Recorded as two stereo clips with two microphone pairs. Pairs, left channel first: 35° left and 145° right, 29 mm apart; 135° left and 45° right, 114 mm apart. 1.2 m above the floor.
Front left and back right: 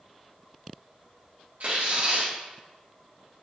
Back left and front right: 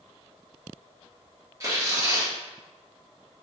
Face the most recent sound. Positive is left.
turn(degrees=-110)